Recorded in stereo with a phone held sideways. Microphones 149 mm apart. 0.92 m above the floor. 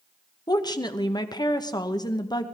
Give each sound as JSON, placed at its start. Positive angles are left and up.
{"t": 0.5, "sound": "a woman speaking", "side_deg": 25, "distance_m": 0.9}